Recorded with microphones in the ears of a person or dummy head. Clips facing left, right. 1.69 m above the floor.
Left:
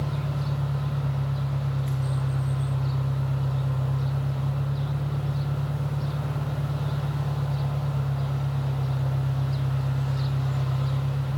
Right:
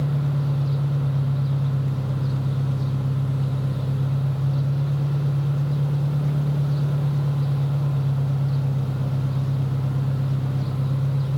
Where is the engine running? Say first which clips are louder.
Right 5 dB; 50° right (ahead or behind), 3 m.